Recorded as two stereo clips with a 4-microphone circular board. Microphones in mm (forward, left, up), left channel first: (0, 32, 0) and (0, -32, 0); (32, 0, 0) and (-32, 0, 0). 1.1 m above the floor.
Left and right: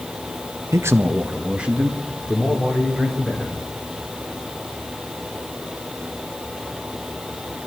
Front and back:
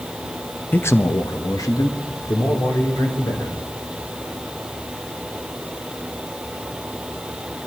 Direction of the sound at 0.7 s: 60° right.